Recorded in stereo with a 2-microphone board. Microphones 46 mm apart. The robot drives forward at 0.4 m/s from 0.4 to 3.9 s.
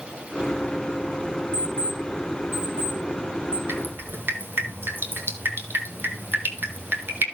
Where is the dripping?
50° right (ahead or behind), 1.7 m.